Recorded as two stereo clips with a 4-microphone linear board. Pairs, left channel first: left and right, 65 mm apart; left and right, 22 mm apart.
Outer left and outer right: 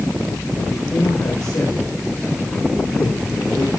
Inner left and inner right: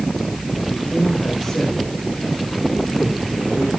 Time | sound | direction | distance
0.7 | a man speaking | 55° left (ahead or behind) | 9.5 m